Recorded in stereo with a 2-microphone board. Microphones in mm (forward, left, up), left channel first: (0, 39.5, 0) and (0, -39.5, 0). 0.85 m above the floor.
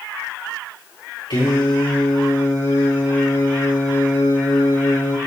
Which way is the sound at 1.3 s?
80° left.